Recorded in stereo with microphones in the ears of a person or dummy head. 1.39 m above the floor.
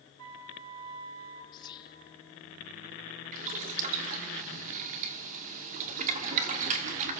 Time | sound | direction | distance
0.2 | a flute | 80° right | 1.4 m
1.5 | whispering | 25° left (ahead or behind) | 0.8 m
3.3 | boiling | 40° right (ahead or behind) | 2.0 m